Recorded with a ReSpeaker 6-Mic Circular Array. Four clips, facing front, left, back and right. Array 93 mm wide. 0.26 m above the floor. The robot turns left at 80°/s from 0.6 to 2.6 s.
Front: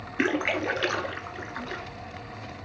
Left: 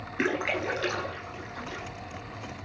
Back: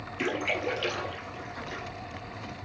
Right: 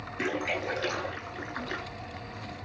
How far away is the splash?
About 0.9 m.